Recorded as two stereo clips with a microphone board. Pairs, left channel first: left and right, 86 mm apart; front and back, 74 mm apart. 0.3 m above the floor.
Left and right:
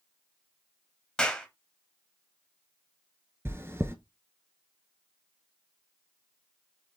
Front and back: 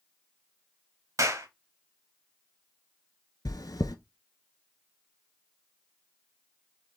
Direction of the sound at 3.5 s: 30° right.